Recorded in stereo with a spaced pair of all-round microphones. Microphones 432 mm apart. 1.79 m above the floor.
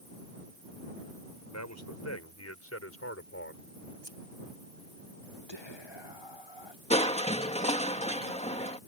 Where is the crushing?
15° left (ahead or behind).